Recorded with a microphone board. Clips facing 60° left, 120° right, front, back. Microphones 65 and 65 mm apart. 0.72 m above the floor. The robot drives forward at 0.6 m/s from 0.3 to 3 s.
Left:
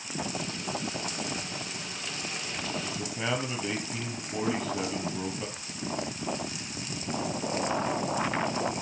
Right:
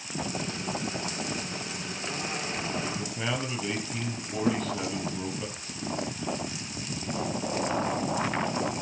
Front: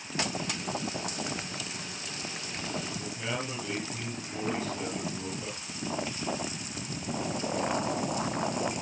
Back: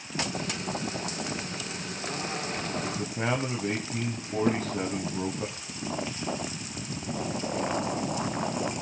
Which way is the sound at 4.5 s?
165° right.